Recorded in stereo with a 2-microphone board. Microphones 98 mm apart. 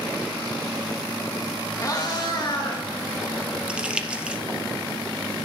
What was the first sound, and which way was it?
A cat meowing, 35° left (ahead or behind).